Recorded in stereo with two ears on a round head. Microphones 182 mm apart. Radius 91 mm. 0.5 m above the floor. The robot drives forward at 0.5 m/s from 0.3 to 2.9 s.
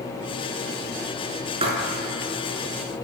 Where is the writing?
30° right (ahead or behind), 5 m.